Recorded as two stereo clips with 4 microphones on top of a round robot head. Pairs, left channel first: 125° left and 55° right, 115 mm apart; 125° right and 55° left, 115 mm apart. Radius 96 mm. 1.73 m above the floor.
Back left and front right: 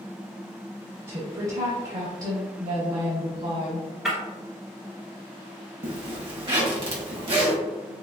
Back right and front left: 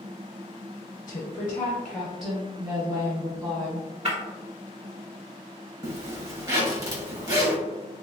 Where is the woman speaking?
95° right, 0.7 m; by 3.9 s 5° right, 1.4 m.